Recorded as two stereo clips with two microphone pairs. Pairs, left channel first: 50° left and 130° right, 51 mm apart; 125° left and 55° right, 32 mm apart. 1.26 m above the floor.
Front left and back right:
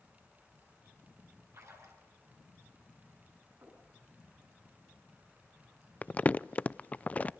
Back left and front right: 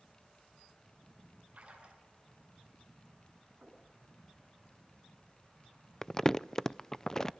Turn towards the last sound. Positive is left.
turn(degrees=70)